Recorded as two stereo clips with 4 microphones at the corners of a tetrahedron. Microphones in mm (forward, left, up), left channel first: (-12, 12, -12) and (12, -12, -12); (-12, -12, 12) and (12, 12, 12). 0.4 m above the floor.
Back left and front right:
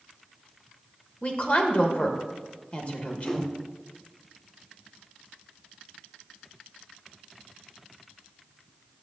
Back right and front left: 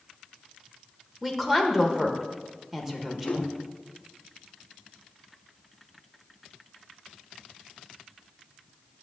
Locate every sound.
1.2 s a woman speaking: 120° left, 1.1 m
3.2 s a whoosh: 150° right, 0.9 m